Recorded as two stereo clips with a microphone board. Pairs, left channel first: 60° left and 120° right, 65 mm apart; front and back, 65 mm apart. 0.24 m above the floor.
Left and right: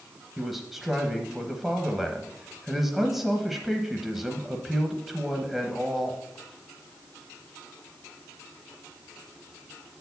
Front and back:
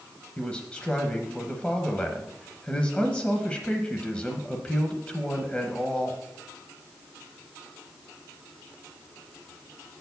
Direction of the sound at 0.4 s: 40° right.